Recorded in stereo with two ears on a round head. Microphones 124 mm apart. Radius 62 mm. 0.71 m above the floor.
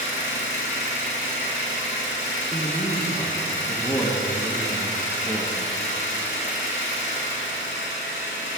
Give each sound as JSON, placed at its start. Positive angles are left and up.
{"t": 0.0, "sound": "an engine running", "side_deg": 55, "distance_m": 2.0}
{"t": 2.5, "sound": "a man speaking", "side_deg": 15, "distance_m": 1.0}